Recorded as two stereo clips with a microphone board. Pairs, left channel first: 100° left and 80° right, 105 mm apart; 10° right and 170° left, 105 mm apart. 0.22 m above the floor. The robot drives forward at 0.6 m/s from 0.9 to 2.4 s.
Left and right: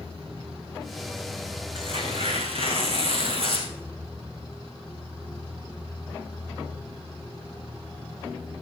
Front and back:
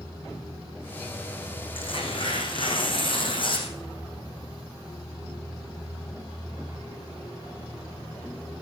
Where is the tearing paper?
45° right, 5 m; by 3.7 s 50° right, 4.5 m.